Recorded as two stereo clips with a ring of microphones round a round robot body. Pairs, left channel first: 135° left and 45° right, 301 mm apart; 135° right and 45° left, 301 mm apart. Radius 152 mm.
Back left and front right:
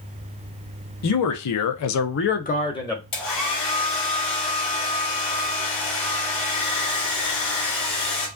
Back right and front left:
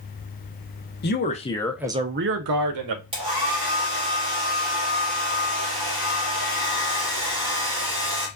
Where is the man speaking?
170° left, 1.0 m; by 3.0 s 55° left, 1.1 m.